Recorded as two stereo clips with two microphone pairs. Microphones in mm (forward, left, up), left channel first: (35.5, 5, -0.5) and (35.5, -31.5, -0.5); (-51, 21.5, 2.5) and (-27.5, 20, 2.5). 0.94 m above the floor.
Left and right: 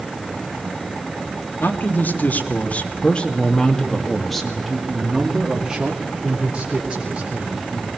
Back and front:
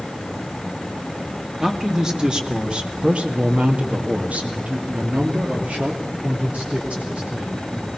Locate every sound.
1.6 s a man speaking: 65° left, 2.5 m; by 7.9 s 35° right, 4 m